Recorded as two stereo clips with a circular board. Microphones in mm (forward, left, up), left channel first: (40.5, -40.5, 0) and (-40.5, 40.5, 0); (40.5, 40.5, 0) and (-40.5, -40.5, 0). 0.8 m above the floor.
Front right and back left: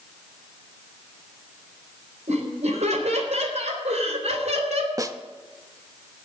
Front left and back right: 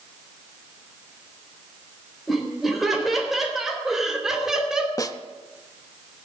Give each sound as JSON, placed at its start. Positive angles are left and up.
{"t": 2.3, "sound": "laughter", "azimuth_deg": 135, "distance_m": 4.5}
{"t": 5.0, "sound": "a snare drum", "azimuth_deg": 90, "distance_m": 0.7}